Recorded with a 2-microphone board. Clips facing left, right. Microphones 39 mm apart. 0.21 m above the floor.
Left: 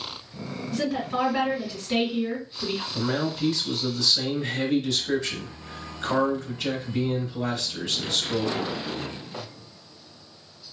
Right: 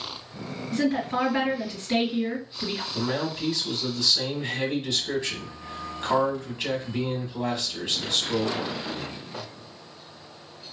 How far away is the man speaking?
About 1.4 m.